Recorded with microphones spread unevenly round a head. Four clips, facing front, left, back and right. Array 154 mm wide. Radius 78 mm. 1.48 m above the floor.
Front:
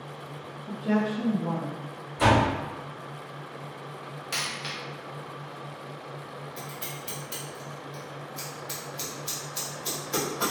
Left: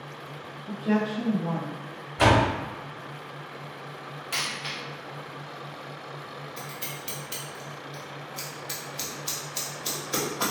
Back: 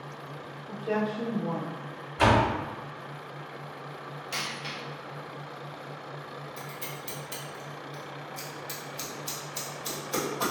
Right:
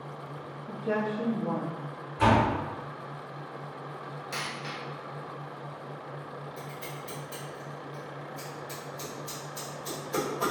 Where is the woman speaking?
40° left, 0.9 m; by 1.8 s 65° left, 1.6 m.